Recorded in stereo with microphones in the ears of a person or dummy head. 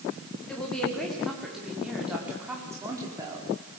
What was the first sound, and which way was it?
A woman speaking, 5° left (ahead or behind).